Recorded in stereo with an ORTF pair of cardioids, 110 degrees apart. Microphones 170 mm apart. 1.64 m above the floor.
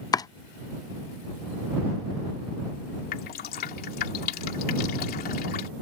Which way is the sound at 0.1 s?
20° left.